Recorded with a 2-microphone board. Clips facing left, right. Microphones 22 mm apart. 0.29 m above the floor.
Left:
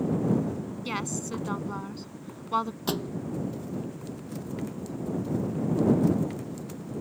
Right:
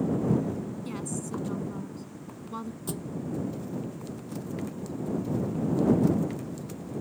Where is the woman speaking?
55° left (ahead or behind).